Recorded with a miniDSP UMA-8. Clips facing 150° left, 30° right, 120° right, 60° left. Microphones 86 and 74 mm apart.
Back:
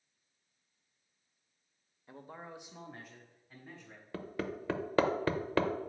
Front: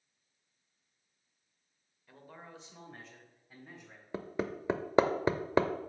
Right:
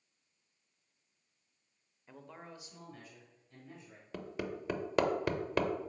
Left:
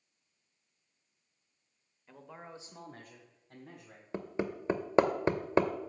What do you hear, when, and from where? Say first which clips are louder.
2.1 s a man speaking: back 4 dB, left 2 dB; 165° left, 0.9 m; by 4.0 s 55° left, 2 m
4.1 s hammering: front 2 dB, left 4 dB; 25° left, 0.6 m